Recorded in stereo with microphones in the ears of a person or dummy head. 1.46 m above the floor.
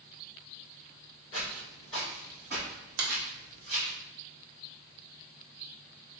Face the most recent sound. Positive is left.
turn(degrees=-75)  # may be behind; listen again after turning